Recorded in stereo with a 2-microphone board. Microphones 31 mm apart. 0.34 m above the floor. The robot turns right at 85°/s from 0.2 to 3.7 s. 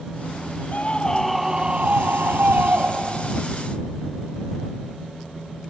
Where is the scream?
125° left; by 3.4 s 5° right.